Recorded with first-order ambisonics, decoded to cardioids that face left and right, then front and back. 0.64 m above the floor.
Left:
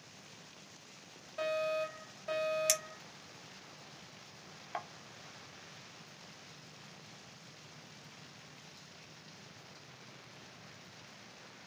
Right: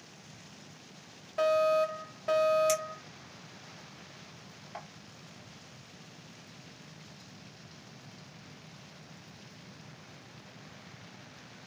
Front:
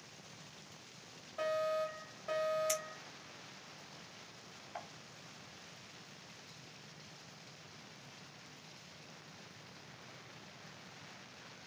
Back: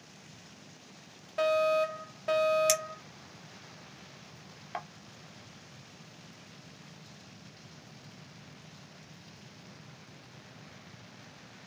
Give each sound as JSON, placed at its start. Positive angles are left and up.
{"t": 1.4, "sound": "a fire alarm", "azimuth_deg": -155, "distance_m": 3.5}
{"t": 2.7, "sound": "a clink", "azimuth_deg": 155, "distance_m": 1.1}